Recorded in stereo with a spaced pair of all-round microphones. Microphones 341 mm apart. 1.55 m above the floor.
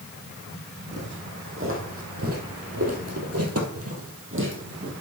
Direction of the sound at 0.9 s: 35° right (ahead or behind).